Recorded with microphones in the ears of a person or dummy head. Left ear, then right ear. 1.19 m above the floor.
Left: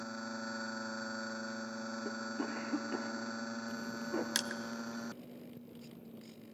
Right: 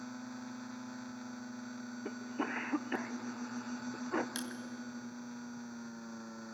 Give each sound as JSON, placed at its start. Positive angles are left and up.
{"t": 2.0, "sound": "a cough", "side_deg": -35, "distance_m": 0.6}
{"t": 4.3, "sound": "crushing", "side_deg": 30, "distance_m": 0.6}